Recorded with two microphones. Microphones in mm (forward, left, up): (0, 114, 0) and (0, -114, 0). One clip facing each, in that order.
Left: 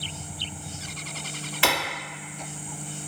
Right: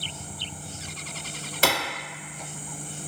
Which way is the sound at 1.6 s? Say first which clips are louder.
Right 1 dB; 45° right (ahead or behind).